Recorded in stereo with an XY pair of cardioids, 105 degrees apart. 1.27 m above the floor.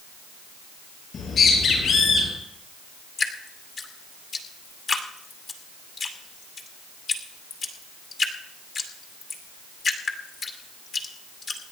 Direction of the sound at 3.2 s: 50° left.